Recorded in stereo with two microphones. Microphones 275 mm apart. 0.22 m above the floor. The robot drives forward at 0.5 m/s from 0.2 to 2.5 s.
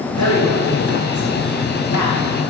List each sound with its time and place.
0.2 s a man speaking: 80° left, 10 m; by 2.2 s 85° left, 9.5 m